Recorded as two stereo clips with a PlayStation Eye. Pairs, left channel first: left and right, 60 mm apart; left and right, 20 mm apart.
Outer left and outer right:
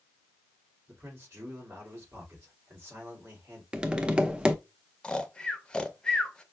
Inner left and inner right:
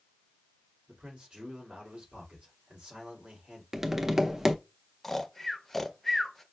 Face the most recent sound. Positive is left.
turn(degrees=15)  # may be behind; listen again after turning